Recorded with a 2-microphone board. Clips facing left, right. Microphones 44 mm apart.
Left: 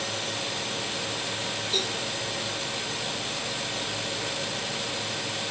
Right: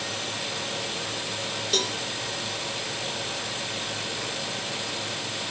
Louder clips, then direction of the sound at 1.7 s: Right 3 dB; 70° right (ahead or behind).